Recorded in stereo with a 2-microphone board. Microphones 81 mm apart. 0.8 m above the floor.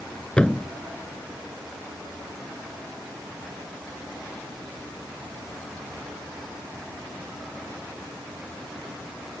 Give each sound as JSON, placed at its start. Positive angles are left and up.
{"t": 0.4, "sound": "a thud", "side_deg": 10}